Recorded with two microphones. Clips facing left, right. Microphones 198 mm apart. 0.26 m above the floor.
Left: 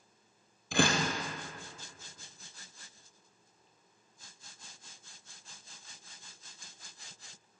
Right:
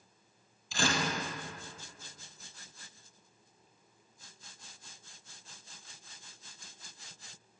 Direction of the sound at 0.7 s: 60° left (ahead or behind).